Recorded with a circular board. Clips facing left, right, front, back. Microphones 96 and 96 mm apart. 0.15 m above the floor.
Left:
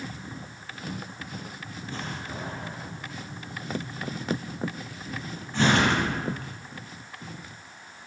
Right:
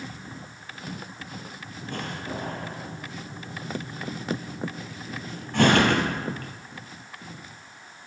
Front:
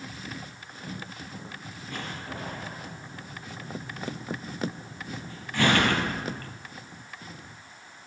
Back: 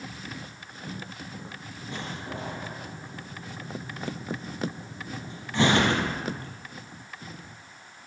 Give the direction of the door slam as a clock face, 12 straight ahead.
4 o'clock.